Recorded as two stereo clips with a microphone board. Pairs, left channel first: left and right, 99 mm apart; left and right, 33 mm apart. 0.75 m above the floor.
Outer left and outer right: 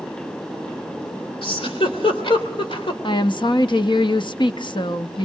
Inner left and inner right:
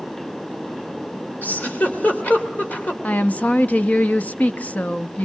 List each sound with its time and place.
1.4 s a giggle: 65° left (ahead or behind), 2.5 m
3.0 s a woman speaking: 55° left (ahead or behind), 0.7 m